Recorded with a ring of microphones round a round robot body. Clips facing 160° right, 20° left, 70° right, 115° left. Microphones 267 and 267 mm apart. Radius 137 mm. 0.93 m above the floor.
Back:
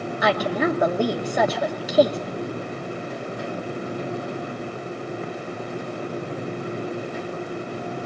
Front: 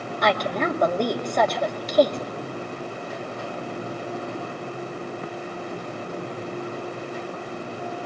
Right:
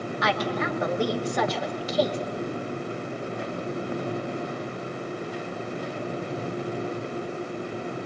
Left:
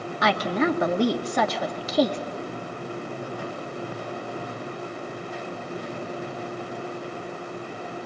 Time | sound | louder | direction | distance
0.2 | a woman speaking | back 2 dB, left 5 dB | 120° left | 2.5 m